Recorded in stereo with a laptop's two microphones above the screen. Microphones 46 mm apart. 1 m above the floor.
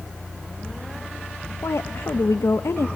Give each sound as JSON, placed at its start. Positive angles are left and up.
{"t": 1.6, "sound": "a woman speaking", "side_deg": 70, "distance_m": 0.7}